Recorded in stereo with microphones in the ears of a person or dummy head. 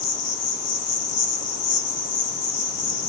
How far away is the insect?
About 1.7 m.